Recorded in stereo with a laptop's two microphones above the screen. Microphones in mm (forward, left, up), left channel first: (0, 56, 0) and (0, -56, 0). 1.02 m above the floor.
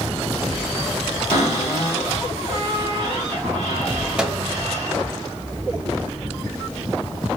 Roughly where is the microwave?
Centre.